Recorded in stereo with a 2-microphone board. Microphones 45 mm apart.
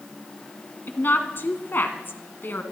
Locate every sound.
0.9 s a woman speaking: 55° left (ahead or behind), 2 m